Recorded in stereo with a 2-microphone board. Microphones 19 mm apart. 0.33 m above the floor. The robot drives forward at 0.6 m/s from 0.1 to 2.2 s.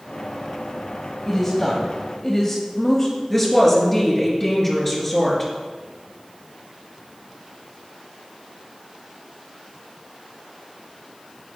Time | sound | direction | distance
1.3 | a woman speaking | 10° left (ahead or behind) | 1.7 m
3.3 | a woman speaking | 5° left (ahead or behind) | 4.5 m